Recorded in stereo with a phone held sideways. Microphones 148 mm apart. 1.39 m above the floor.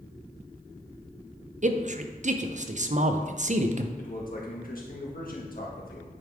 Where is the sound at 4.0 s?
70° left (ahead or behind), 1.4 m.